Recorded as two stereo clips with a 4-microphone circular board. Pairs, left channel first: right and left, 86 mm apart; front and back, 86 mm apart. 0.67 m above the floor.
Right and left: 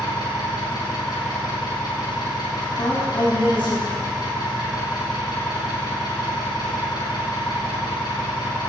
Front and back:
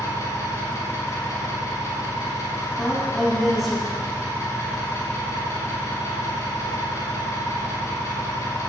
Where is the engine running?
55° right, 4 m.